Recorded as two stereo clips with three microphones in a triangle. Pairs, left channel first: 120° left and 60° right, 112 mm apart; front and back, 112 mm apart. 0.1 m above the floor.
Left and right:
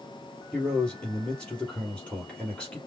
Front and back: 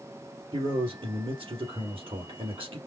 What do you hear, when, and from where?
0.5 s a man speaking: 160° right, 3 m